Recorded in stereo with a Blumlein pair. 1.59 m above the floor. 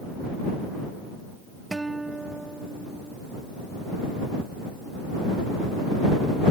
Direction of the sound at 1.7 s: 5° right.